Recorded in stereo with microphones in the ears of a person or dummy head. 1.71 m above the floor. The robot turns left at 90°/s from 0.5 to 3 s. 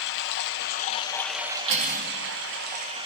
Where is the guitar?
I don't hear a guitar.